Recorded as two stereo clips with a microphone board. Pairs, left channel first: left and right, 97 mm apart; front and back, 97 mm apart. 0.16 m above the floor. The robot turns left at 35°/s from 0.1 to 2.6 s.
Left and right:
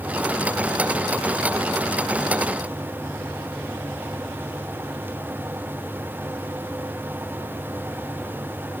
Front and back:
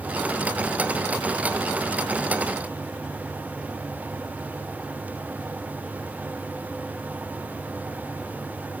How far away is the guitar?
I don't hear a guitar.